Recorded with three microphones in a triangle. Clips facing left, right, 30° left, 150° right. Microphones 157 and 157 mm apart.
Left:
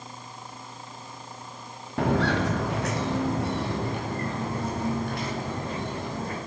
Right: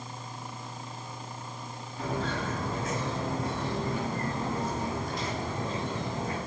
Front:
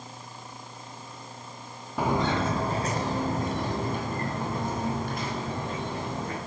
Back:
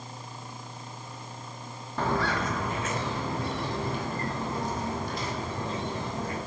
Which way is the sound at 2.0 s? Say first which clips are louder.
Left 8 dB, front 2 dB; 110° left.